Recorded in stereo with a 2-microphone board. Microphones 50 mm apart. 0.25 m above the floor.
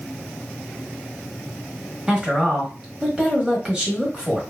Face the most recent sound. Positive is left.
turn(degrees=-20)  # may be behind; listen again after turning